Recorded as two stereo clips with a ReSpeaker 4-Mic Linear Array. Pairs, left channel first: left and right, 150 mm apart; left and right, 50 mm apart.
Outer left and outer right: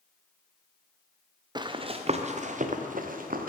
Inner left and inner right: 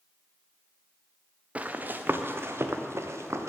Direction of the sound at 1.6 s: 30° right (ahead or behind).